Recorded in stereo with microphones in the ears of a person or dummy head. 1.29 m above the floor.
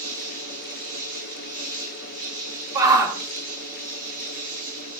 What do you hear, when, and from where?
0.0 s an insect: 80° right, 3 m
2.8 s a shout: 20° right (ahead or behind), 2.5 m